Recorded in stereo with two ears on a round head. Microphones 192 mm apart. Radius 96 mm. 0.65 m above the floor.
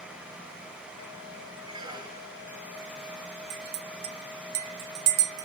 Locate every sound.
1.6 s a squeak: 20° right (ahead or behind), 0.9 m
3.5 s a clink: 75° right (ahead or behind), 1.0 m